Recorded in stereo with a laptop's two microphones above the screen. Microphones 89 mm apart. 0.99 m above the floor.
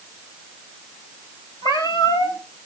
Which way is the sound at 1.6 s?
55° left (ahead or behind).